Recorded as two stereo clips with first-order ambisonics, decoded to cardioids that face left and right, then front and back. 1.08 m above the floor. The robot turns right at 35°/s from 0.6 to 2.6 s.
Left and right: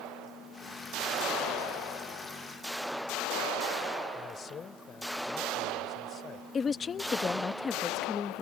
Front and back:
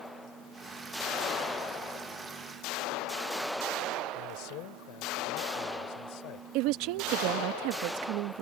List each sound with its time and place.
4.2 s a man speaking: 25° left
6.5 s a woman speaking: 160° left